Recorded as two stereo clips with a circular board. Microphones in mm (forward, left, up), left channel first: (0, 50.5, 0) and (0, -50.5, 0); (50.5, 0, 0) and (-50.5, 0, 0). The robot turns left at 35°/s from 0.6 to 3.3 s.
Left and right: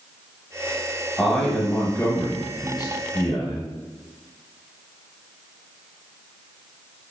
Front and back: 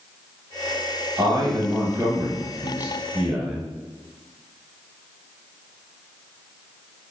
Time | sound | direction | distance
1.2 | a man speaking | 175° left | 0.9 m